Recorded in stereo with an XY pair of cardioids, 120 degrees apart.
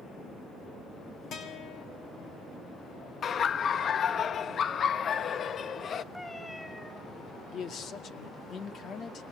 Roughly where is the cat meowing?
Ahead.